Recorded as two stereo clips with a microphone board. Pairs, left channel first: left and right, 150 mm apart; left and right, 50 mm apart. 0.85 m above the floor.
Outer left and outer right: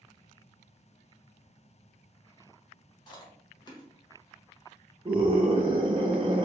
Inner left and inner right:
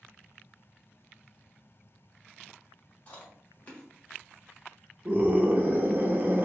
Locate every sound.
3.1 s chewing: 30° left (ahead or behind), 1.3 m
5.0 s a scream: 40° right (ahead or behind), 0.5 m